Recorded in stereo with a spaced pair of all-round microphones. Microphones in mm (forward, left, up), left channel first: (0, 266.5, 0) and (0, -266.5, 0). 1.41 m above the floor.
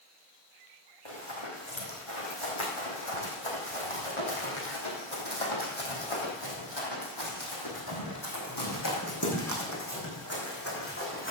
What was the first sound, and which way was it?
Running footsteps, 60° left (ahead or behind).